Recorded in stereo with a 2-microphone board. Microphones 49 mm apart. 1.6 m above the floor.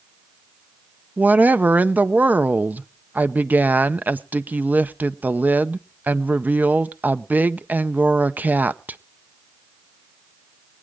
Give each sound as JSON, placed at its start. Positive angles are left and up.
{"t": 1.2, "sound": "a woman speaking", "side_deg": -35, "distance_m": 0.6}